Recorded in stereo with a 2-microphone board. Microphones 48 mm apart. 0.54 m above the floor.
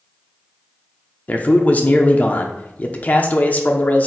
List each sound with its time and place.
1.3 s a man speaking: 35° left (ahead or behind), 0.8 m